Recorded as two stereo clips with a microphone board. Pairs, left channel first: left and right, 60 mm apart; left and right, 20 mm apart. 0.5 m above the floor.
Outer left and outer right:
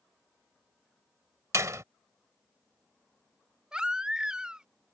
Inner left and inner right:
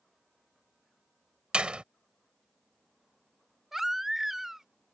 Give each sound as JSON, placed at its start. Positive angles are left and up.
{"t": 1.5, "sound": "a door slam", "side_deg": -60}
{"t": 3.7, "sound": "a baby crying", "side_deg": -15}